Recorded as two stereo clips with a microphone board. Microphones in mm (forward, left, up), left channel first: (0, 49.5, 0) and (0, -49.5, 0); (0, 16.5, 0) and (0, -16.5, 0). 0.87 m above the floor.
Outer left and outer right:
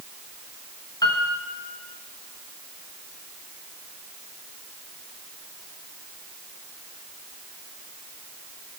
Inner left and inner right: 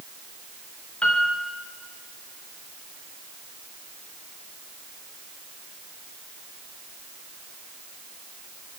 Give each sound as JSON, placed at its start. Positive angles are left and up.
{"t": 1.0, "sound": "a piano", "side_deg": 40, "distance_m": 1.2}